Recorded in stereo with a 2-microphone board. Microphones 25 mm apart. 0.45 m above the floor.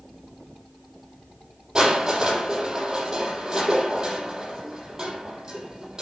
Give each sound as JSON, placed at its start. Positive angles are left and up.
{"t": 1.8, "sound": "crushing", "side_deg": -20, "distance_m": 8.0}